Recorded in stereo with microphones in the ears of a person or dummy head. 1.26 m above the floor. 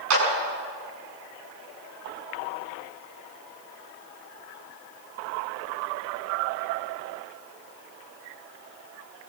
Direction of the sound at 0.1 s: 85° right.